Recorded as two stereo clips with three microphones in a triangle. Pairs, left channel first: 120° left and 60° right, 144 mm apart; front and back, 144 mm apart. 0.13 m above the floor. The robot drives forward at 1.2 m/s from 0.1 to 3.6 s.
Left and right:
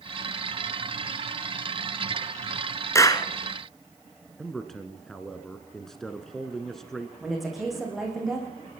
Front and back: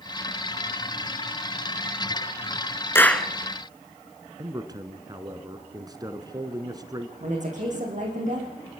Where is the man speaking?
155° right, 1.2 m.